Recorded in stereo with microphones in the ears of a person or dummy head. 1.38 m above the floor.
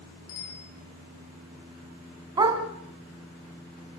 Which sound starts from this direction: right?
A dog barking, at 2.4 s.